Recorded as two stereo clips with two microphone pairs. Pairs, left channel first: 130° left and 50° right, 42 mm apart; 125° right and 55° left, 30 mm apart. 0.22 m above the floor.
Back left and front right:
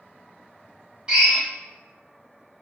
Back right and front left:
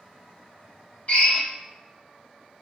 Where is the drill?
105° right, 1.0 m.